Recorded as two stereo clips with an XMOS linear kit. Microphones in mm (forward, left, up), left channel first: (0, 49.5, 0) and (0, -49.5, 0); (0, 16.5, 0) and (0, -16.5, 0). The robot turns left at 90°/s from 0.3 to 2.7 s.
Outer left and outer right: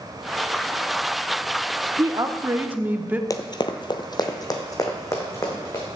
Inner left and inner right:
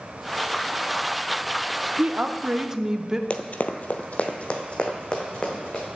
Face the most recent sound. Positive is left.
turn(degrees=30)  # may be behind; listen again after turning